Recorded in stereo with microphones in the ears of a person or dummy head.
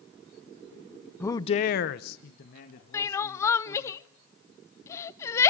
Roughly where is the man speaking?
Centre.